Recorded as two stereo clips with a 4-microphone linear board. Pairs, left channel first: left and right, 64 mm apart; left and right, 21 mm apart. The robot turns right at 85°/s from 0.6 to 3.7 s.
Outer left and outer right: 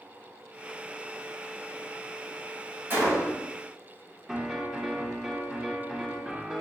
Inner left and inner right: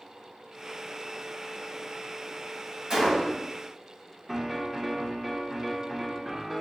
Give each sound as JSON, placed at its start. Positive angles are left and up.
{"t": 2.9, "sound": "a gunshot", "azimuth_deg": -30, "distance_m": 1.2}
{"t": 4.3, "sound": "a piano", "side_deg": -5, "distance_m": 0.7}